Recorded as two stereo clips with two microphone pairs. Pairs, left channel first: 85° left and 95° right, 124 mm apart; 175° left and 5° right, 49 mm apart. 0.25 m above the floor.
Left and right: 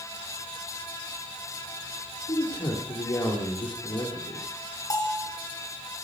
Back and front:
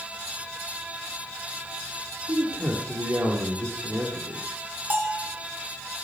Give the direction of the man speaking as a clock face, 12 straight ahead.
11 o'clock.